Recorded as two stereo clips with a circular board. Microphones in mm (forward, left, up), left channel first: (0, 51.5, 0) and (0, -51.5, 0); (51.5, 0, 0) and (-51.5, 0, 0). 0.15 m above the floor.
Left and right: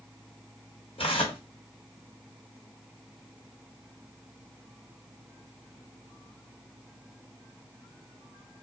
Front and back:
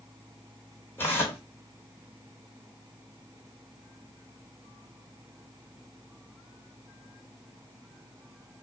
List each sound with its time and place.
1.0 s tearing paper: 70° left, 1.5 m